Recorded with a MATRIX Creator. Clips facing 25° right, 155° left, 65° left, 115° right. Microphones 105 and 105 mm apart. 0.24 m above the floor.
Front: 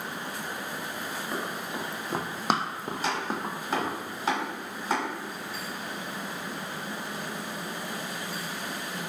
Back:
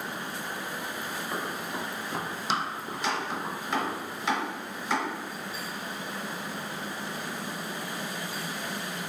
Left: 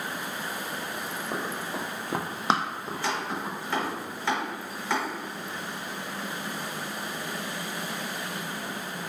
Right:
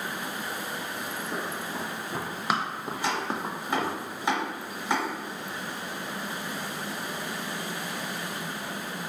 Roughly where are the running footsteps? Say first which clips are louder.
Even, left 2 dB; ahead left.